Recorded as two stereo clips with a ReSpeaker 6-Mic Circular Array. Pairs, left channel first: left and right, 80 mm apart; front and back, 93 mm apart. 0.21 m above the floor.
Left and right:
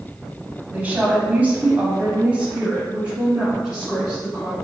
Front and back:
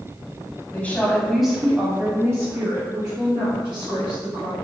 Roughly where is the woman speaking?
Ahead right.